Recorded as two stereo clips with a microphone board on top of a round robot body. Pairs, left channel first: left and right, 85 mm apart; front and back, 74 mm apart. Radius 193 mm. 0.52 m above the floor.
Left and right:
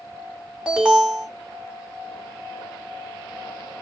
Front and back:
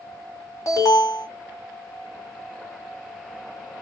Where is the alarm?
10° right, 2.5 m.